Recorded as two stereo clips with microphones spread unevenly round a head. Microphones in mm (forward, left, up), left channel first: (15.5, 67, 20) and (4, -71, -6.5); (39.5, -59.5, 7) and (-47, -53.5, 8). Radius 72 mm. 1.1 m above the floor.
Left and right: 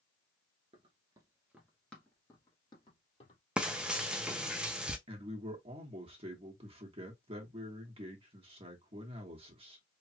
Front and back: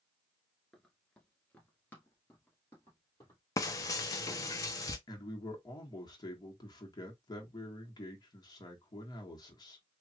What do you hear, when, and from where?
0.7 s running footsteps: 85° right, 1.1 m; by 3.4 s 60° left, 1.8 m
3.6 s frying: straight ahead, 0.5 m
5.1 s a man speaking: 45° right, 1.2 m